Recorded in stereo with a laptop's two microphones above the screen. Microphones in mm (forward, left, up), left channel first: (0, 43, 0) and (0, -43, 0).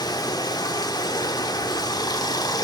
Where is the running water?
50° left (ahead or behind), 0.8 m.